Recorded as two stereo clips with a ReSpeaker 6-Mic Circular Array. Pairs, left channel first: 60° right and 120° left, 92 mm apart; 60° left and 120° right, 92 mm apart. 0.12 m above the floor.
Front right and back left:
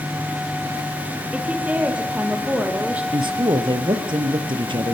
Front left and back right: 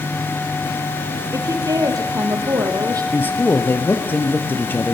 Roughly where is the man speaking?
Behind left.